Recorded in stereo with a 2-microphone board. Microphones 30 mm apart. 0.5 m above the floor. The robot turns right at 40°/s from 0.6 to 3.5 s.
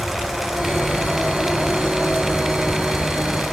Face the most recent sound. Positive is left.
No sound to turn to.